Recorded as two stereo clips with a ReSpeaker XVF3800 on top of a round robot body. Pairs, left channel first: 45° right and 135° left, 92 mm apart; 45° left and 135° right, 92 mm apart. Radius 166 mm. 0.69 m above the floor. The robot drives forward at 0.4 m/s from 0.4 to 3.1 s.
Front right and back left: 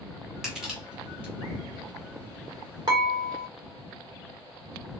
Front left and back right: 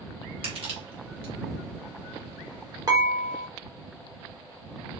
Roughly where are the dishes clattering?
Behind.